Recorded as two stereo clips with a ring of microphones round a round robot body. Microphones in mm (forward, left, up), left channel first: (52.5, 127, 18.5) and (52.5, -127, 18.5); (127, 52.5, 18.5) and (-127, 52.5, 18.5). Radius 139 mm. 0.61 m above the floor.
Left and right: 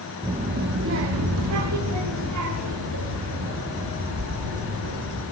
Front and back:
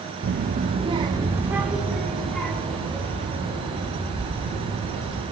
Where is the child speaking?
155° right, 0.8 m; by 5.2 s 80° right, 4 m.